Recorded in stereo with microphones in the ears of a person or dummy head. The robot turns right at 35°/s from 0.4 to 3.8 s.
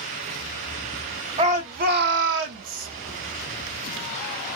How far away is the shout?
About 0.9 m.